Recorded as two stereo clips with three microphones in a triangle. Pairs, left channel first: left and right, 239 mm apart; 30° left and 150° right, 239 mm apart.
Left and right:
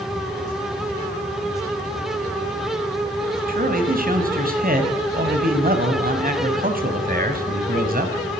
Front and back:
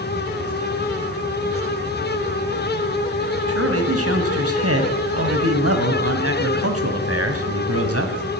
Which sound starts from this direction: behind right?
A man speaking, at 3.5 s.